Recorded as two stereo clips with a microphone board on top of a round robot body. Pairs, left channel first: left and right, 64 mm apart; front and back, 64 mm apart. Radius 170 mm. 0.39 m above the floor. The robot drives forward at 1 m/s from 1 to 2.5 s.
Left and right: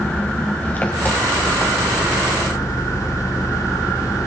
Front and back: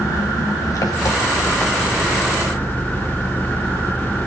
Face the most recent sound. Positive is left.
turn(degrees=60)